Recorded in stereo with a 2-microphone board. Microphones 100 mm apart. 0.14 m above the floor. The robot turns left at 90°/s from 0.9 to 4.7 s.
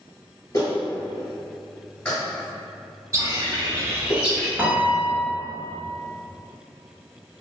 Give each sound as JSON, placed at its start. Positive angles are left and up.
{"t": 0.5, "sound": "a clap", "side_deg": 35, "distance_m": 1.7}
{"t": 3.1, "sound": "a bird", "azimuth_deg": -60, "distance_m": 0.6}
{"t": 4.6, "sound": "a piano", "side_deg": -15, "distance_m": 0.6}